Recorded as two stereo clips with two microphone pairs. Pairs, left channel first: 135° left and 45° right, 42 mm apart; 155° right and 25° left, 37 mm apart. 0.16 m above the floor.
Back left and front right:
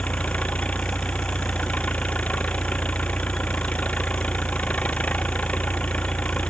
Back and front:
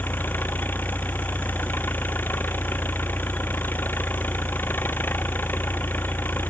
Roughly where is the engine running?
Behind.